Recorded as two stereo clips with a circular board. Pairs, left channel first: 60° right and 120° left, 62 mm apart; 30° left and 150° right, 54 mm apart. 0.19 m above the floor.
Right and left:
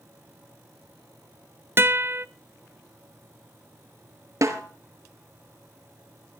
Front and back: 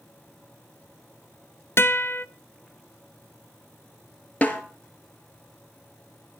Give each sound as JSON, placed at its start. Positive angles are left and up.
{"t": 1.8, "sound": "a guitar", "azimuth_deg": 70, "distance_m": 0.5}
{"t": 4.4, "sound": "a snare drum", "azimuth_deg": 95, "distance_m": 2.0}